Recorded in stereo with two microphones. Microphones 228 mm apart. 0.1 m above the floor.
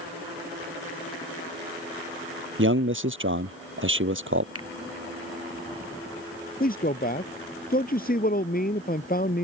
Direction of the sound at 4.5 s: 80° right.